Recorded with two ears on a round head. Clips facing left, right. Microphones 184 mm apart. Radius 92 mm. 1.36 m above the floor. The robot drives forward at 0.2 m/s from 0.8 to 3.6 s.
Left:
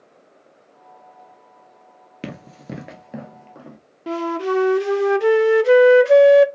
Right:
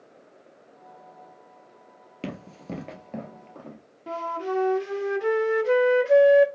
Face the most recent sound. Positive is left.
turn(degrees=65)  # may be behind; listen again after turning